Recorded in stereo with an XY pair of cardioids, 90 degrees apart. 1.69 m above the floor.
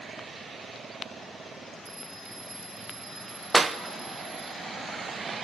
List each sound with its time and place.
1.9 s a bell: 35° right, 4 m
3.5 s a clap: 35° right, 0.9 m